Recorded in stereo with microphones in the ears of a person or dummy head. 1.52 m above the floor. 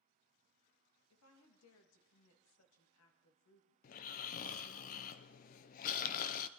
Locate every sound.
1.1 s a woman speaking: 85° left, 2 m
3.8 s snoring: 45° left (ahead or behind), 0.6 m